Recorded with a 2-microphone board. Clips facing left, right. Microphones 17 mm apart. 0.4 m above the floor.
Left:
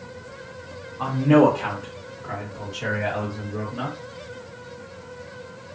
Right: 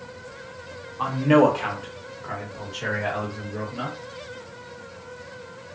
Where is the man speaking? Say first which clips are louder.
Left 1 dB; 30° right (ahead or behind), 1.6 m; by 4.0 s 5° left (ahead or behind), 1.9 m.